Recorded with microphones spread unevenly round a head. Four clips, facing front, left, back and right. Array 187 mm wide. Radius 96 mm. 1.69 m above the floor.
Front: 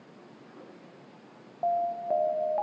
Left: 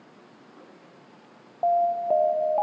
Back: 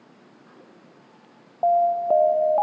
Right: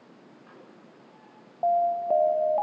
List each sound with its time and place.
1.6 s an alarm: 160° left, 0.6 m